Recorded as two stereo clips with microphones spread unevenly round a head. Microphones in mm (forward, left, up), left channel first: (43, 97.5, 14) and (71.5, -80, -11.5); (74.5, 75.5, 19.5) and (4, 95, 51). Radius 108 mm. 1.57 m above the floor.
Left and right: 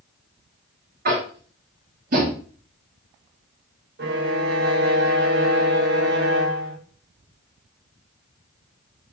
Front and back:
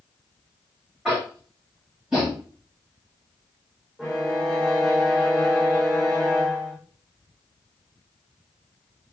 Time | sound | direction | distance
1.1 | tapping | 125° right | 1.0 m
4.0 | a violin | 120° right | 0.7 m